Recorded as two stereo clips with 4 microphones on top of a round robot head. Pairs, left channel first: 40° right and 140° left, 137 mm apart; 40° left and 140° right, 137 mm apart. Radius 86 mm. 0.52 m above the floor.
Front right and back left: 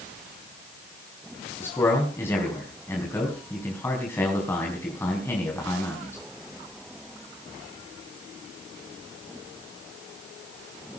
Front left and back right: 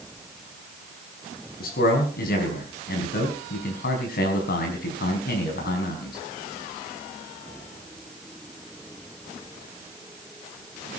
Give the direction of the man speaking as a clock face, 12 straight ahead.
11 o'clock.